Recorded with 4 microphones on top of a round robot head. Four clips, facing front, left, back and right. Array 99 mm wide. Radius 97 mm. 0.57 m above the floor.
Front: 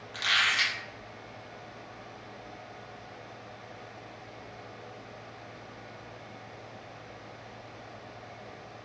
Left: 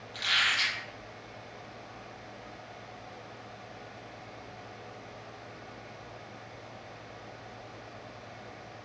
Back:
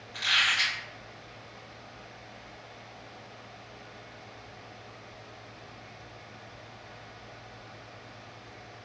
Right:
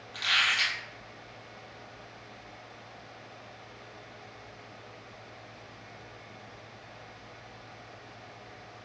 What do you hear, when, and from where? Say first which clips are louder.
0.1 s a squeak: right 1 dB, front 1 dB; 5° left, 1.4 m